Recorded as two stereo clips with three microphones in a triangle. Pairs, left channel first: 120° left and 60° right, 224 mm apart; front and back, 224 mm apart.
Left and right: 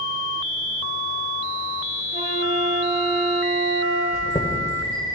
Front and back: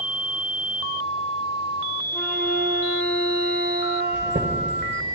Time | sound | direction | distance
2.1 | a flute | 70° right | 5.5 m
4.1 | a chime | 165° right | 1.5 m